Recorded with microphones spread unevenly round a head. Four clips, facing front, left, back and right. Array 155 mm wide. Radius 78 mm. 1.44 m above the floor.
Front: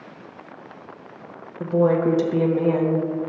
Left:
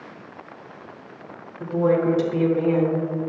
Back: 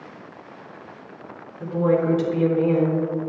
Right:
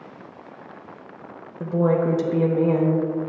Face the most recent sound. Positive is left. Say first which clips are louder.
# left 1 dB, front 2 dB
turn(degrees=-30)